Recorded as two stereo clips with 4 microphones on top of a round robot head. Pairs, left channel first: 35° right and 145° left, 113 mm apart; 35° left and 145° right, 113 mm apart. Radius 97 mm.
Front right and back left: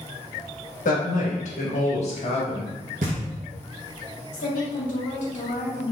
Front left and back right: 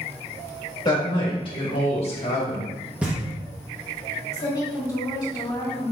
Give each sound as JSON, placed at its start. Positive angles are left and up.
{"t": 0.8, "sound": "a woman speaking", "azimuth_deg": -20, "distance_m": 1.7}
{"t": 3.0, "sound": "knocking", "azimuth_deg": 135, "distance_m": 0.9}
{"t": 4.3, "sound": "a woman speaking", "azimuth_deg": -25, "distance_m": 2.0}